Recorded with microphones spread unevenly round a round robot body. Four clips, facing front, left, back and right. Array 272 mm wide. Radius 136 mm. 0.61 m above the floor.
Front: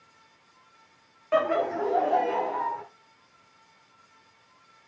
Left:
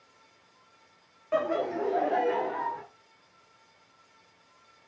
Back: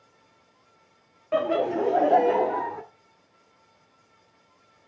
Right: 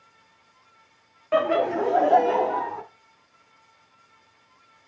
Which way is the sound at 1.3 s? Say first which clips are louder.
Right 6 dB, back 1 dB; 100° right.